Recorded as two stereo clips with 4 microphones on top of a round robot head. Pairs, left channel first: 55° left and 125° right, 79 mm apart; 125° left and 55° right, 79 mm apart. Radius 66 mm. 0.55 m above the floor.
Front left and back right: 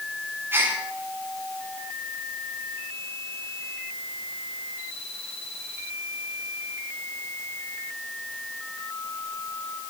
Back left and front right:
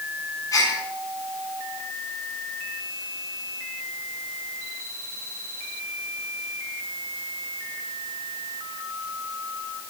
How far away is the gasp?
About 9.5 m.